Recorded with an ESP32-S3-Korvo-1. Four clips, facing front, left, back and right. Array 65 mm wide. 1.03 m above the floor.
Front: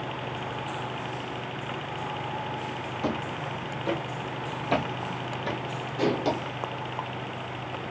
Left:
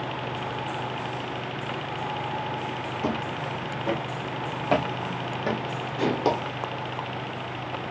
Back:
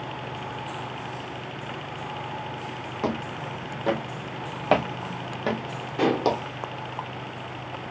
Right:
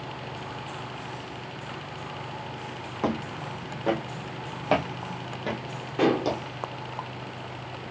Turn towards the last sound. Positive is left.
turn(degrees=-120)